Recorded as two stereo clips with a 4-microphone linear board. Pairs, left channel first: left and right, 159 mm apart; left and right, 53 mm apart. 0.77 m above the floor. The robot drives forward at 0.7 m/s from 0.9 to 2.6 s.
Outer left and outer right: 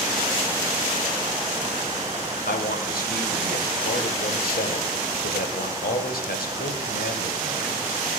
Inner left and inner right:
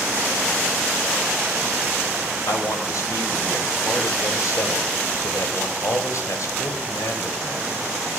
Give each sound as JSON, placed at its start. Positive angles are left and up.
{"t": 2.5, "sound": "a man speaking", "side_deg": 75, "distance_m": 3.0}